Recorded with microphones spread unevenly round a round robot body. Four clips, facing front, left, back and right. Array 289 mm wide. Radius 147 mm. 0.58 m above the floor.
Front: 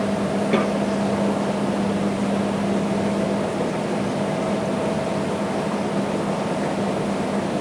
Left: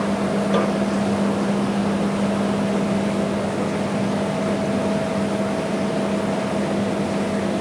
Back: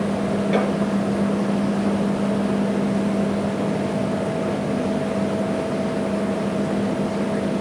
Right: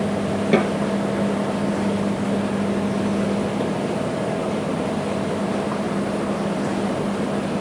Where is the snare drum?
70° right, 4.5 m.